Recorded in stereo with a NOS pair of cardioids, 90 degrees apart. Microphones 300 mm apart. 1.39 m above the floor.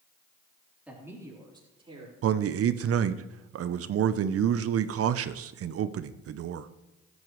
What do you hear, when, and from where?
0.9 s a man speaking: 5° right, 3.5 m; by 2.1 s 20° right, 5 m
2.2 s a man speaking: 50° right, 0.6 m